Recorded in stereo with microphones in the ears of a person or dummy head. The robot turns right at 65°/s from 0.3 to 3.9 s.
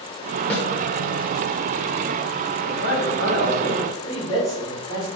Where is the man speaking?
60° left, 1.4 m; by 5.1 s 145° left, 1.4 m.